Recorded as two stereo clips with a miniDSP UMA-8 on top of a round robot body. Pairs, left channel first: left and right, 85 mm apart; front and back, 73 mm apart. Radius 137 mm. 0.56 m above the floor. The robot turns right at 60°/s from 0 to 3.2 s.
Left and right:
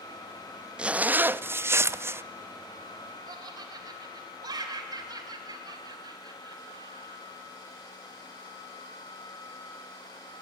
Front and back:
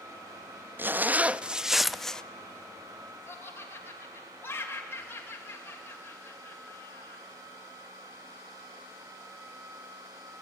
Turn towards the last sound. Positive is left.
turn(degrees=-60)